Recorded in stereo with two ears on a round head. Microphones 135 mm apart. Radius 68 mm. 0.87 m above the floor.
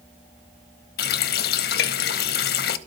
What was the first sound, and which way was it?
A running tap, 65° left (ahead or behind).